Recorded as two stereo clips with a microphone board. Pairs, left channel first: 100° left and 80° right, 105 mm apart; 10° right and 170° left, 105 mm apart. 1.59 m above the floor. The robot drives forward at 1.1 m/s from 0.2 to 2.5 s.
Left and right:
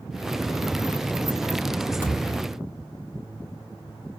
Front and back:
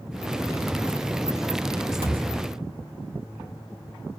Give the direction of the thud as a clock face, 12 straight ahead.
6 o'clock.